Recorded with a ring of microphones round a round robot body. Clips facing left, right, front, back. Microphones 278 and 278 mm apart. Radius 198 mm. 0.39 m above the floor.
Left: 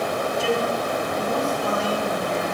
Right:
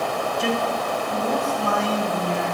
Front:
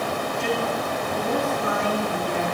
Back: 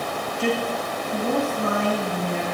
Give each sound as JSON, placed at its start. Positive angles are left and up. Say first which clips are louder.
{"t": 0.4, "sound": "a man speaking", "louder": "left 1 dB, back 3 dB", "azimuth_deg": -125, "distance_m": 2.5}